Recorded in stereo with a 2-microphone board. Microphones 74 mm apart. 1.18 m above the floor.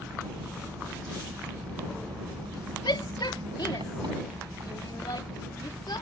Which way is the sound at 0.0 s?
90° right.